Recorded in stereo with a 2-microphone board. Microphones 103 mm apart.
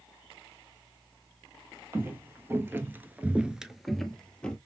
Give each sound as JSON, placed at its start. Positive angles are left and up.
{"t": 1.9, "sound": "footsteps", "side_deg": -20, "distance_m": 1.0}